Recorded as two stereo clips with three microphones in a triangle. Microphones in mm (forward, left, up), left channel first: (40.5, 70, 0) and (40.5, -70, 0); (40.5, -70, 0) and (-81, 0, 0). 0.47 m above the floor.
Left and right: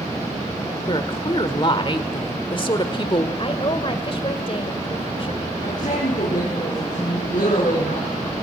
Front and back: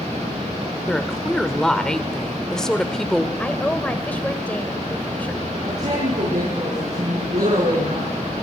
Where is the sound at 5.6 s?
115° left, 7 m.